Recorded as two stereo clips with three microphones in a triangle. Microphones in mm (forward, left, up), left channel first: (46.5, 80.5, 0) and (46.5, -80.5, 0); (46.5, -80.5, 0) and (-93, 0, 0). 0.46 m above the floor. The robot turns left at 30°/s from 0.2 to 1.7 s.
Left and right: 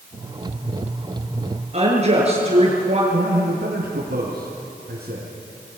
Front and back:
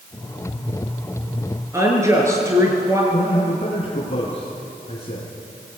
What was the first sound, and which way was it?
A woman speaking, 140° right.